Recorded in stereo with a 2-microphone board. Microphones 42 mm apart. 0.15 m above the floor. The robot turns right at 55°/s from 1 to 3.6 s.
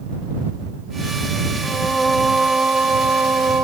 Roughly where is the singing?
Behind left.